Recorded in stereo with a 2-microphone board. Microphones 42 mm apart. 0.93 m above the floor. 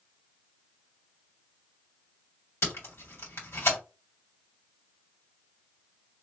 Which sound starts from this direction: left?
Tape being pulled, at 2.6 s.